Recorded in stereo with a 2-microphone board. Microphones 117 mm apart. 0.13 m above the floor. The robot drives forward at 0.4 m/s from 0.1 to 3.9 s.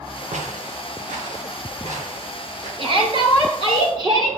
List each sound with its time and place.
0.3 s footsteps: 80° right, 1.8 m
2.8 s a shout: 45° right (ahead or behind), 1.8 m; by 4.4 s 40° right (ahead or behind), 2 m